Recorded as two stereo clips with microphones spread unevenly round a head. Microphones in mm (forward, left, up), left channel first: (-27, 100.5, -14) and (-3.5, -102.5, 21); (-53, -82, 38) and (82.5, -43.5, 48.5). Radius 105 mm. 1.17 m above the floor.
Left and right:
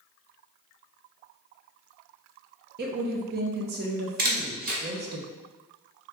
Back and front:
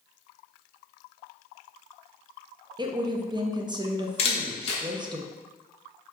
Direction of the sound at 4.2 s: 120° right.